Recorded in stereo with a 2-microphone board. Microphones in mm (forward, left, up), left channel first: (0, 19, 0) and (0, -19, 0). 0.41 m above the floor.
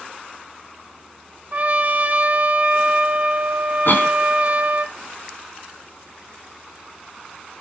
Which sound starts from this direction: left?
A cough, at 3.9 s.